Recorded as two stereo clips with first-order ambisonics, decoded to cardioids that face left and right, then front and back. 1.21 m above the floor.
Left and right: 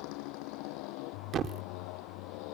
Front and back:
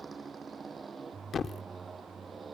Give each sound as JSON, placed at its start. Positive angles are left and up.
{"t": 0.0, "sound": "a motorcycle", "azimuth_deg": 105}
{"t": 1.3, "sound": "a thud", "azimuth_deg": -55}